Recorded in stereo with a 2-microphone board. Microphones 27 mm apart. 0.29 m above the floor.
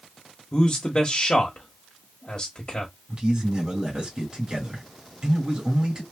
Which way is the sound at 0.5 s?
35° left (ahead or behind).